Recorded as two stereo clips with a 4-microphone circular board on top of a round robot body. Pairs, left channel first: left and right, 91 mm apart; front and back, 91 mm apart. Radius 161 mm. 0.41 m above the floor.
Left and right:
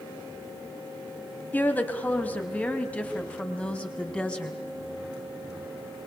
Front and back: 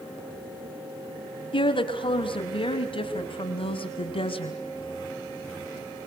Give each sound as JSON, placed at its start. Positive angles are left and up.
{"t": 1.5, "sound": "a woman speaking", "azimuth_deg": 20, "distance_m": 4.0}